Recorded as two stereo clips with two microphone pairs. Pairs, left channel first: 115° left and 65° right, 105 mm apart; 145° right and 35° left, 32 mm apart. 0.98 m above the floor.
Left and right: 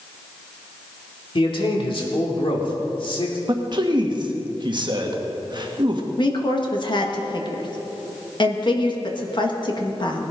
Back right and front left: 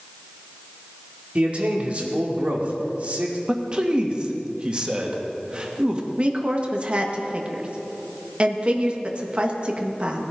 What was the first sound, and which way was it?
A man speaking, 85° left.